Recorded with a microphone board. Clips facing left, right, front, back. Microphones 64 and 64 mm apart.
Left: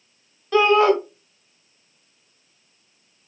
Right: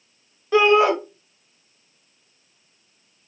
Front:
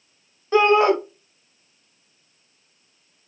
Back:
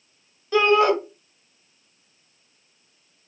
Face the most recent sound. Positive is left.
turn(degrees=-30)